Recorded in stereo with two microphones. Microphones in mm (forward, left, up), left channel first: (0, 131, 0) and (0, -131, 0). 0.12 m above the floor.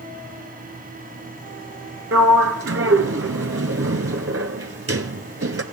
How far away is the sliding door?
About 0.7 m.